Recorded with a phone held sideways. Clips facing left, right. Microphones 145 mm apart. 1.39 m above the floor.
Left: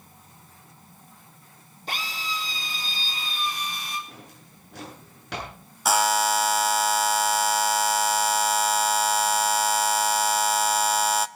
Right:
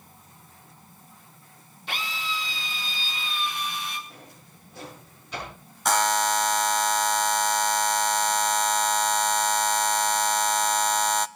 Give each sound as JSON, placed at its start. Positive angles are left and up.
{"t": 1.9, "sound": "a drill", "side_deg": 40, "distance_m": 3.5}
{"t": 4.1, "sound": "a drawer", "side_deg": 85, "distance_m": 8.5}
{"t": 5.8, "sound": "a buzzer", "side_deg": 5, "distance_m": 0.5}